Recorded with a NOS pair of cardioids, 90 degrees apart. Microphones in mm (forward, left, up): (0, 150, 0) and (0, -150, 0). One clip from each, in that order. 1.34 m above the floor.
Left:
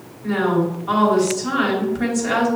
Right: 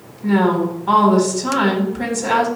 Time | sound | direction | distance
0.2 | a woman speaking | 70° right | 1.7 m